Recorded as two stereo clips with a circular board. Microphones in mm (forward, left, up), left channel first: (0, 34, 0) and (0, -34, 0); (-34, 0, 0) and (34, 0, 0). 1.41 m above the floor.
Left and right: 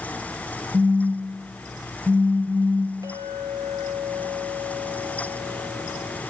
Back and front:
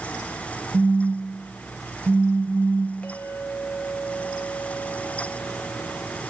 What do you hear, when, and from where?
0.7 s a phone buzzing: 15° right, 1.6 m
3.0 s a clink: 110° right, 4.5 m